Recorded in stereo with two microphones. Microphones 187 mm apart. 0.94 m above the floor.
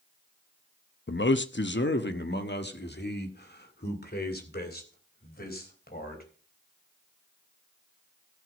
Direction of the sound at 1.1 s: 75° left (ahead or behind).